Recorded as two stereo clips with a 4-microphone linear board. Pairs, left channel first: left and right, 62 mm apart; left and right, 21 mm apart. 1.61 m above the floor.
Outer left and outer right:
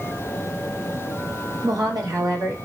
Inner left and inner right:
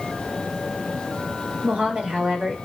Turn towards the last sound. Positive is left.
turn(degrees=-90)